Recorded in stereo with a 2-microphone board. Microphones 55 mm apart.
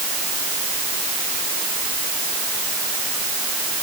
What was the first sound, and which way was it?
Only background noise.